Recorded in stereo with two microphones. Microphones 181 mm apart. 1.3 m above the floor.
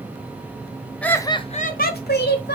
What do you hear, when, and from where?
1.0 s laughter: 5° left (ahead or behind), 0.6 m; by 2.6 s 80° left, 0.8 m